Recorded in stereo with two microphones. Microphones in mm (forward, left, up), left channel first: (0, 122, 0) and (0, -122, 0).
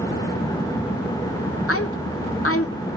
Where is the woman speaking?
65° left (ahead or behind), 0.8 m.